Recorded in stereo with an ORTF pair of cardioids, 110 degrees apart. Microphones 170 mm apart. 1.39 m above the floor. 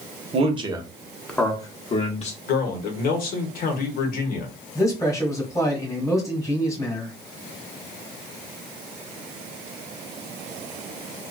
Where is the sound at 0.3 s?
40° right, 0.8 m; by 2.4 s 45° left, 1.0 m.